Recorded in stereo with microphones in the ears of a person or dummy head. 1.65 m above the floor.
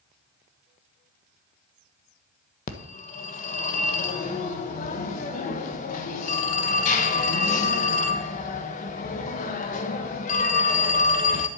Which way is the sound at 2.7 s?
45° left (ahead or behind).